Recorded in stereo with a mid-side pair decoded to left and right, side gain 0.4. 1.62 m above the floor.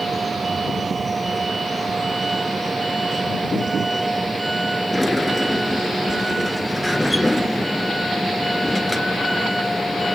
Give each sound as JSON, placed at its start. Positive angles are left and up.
{"t": 0.0, "sound": "a vehicle", "azimuth_deg": -30}
{"t": 4.9, "sound": "a sliding door", "azimuth_deg": 10}